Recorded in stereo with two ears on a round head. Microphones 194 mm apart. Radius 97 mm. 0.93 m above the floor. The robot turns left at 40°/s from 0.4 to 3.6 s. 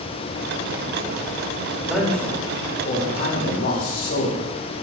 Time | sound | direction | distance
1.7 | a man speaking | 170° right | 3.5 m